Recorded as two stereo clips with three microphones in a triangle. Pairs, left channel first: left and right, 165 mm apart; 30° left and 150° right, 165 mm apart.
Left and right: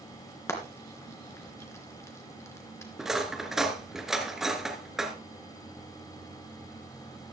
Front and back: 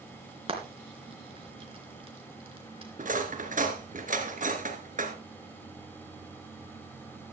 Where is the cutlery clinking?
175° right, 1.8 m.